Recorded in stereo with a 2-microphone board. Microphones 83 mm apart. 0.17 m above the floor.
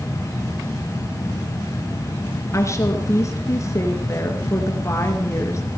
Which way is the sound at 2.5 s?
35° left (ahead or behind).